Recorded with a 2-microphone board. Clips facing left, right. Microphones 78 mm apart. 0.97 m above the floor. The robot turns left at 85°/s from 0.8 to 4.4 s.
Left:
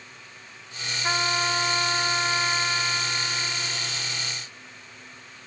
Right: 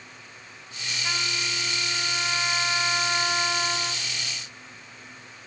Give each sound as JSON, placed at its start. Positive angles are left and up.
{"t": 1.0, "sound": "a trumpet", "azimuth_deg": 140, "distance_m": 1.5}